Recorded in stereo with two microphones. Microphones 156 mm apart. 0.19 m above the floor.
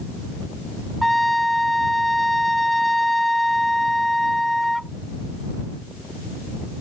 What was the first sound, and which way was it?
A trumpet, centre (ahead or behind).